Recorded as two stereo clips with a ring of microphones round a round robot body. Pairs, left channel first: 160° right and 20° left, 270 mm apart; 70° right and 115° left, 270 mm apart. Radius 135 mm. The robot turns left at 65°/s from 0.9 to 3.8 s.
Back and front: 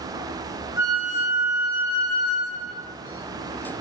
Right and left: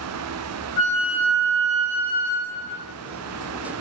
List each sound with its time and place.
0.8 s a flute: 135° right, 1.1 m; by 2.8 s 100° left, 1.1 m